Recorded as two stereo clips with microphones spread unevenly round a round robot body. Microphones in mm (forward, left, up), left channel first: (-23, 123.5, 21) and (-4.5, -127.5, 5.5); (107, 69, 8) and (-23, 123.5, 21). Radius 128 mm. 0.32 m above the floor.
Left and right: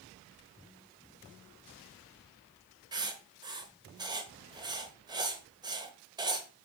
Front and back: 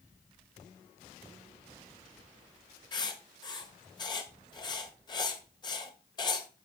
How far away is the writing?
About 1.2 m.